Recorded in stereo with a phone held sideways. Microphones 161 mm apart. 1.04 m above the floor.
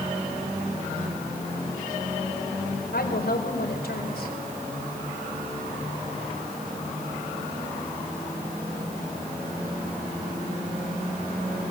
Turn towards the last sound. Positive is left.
turn(degrees=80)